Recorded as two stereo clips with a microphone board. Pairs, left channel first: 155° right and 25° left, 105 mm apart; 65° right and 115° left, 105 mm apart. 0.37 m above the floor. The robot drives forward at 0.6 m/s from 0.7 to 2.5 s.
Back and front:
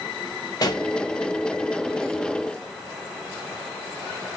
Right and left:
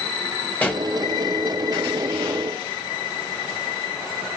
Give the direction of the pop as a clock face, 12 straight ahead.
5 o'clock.